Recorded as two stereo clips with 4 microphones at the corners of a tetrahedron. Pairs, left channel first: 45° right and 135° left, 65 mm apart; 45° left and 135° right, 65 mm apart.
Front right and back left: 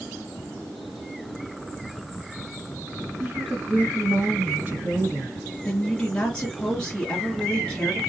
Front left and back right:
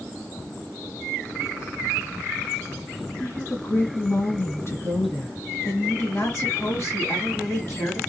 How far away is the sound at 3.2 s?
About 2.0 m.